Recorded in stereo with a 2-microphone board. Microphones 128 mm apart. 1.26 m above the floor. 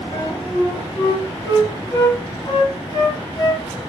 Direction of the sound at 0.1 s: 30° left (ahead or behind).